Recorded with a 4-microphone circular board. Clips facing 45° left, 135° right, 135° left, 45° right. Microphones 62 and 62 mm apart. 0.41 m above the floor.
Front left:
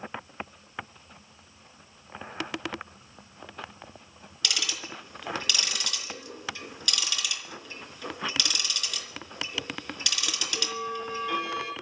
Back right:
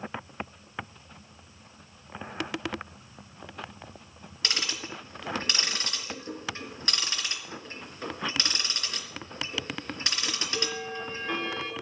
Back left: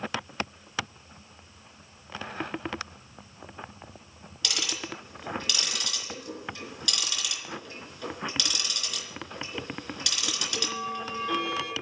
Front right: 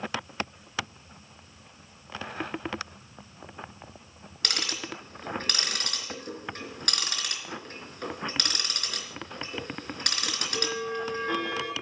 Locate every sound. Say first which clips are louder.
4.4 s ticking: even, even; 80° right, 4 m